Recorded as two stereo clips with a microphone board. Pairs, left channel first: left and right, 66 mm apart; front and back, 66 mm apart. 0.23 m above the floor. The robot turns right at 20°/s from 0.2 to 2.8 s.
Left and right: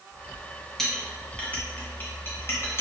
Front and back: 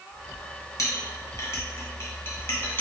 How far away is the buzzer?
No buzzer in this recording.